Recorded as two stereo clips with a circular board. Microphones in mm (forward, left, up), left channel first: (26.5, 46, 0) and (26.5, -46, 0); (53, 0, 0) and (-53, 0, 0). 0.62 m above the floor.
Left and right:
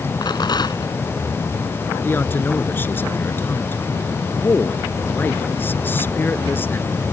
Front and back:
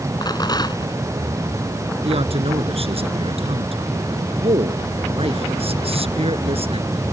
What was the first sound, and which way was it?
A rattle, 50° left.